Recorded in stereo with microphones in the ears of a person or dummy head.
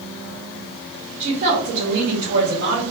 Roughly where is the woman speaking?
Right.